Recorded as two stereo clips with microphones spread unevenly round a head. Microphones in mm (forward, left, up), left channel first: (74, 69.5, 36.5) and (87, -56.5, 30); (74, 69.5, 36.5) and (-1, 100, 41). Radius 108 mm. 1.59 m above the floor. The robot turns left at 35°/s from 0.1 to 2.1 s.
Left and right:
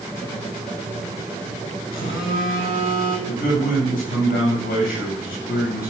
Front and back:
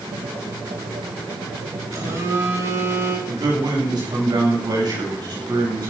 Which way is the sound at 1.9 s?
115° left.